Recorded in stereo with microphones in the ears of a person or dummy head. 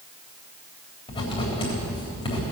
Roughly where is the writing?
Left.